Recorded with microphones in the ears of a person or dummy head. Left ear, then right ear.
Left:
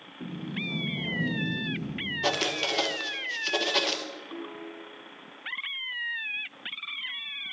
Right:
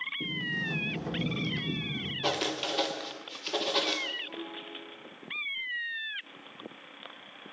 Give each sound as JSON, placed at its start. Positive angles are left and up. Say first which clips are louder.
{"t": 0.2, "sound": "a sliding door", "louder": "left 1 dB", "side_deg": -60, "distance_m": 1.7}
{"t": 2.2, "sound": "writing", "louder": "left 4 dB", "side_deg": 5, "distance_m": 1.0}
{"t": 4.3, "sound": "a piano", "louder": "left 1 dB", "side_deg": -80, "distance_m": 5.0}